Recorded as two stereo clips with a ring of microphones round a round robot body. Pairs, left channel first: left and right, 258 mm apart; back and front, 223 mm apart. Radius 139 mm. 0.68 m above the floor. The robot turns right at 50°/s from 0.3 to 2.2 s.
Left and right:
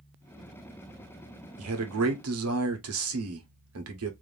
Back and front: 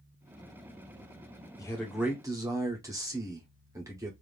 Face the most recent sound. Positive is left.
turn(degrees=-75)